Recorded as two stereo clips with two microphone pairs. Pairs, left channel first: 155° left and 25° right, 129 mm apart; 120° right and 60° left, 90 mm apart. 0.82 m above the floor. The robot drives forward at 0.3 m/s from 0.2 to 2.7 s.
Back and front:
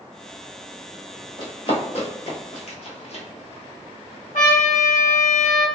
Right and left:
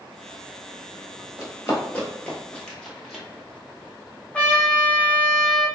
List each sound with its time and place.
1.4 s running footsteps: 170° right, 1.2 m; by 3.2 s 145° left, 1.4 m
4.3 s a trumpet: 160° left, 0.8 m